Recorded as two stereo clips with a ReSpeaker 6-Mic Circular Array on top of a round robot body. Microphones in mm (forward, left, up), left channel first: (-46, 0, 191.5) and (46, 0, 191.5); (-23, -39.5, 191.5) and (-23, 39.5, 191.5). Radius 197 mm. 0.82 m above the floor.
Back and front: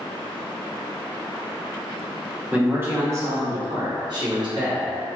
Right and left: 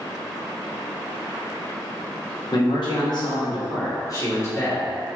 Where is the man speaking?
75° right, 1.3 m; by 5.2 s 25° right, 2 m.